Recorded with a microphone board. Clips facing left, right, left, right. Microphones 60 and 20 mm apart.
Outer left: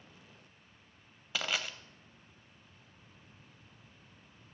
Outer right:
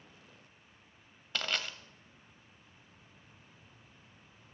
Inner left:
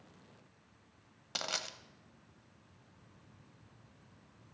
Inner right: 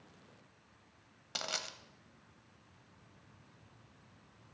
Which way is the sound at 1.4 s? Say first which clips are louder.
Even, inner left 1 dB; 5° left (ahead or behind).